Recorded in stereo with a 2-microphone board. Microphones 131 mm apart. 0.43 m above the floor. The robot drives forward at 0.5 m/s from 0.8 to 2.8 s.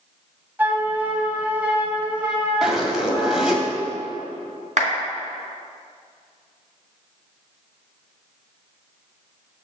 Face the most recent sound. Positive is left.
turn(degrees=-70)  # may be behind; listen again after turning